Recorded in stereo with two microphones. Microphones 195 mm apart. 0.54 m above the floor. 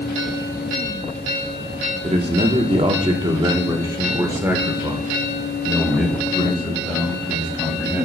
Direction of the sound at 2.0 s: 30° right (ahead or behind).